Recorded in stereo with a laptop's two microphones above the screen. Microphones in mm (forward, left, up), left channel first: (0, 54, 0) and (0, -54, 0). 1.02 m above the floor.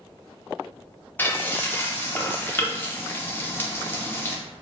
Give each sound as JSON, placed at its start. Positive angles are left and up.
{"t": 1.2, "sound": "frying", "side_deg": 20, "distance_m": 0.7}